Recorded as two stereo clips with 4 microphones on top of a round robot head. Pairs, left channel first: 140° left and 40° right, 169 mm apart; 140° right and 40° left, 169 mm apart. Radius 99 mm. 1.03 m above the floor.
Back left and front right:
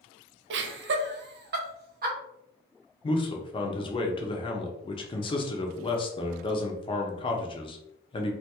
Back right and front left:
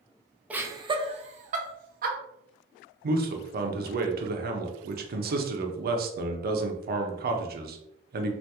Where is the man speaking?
75° left, 0.7 m.